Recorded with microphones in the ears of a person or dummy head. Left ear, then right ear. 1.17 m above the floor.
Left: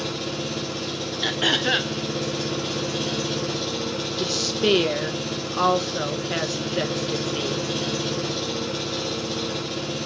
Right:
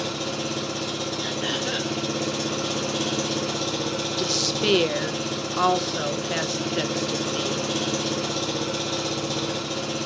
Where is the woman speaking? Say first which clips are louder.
Left 1 dB; 10° right (ahead or behind), 0.7 m.